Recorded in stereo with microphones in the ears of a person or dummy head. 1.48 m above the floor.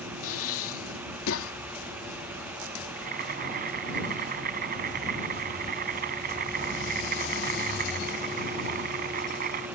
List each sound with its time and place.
0.2 s breathing: 75° left (ahead or behind)
3.0 s boiling: 50° right (ahead or behind)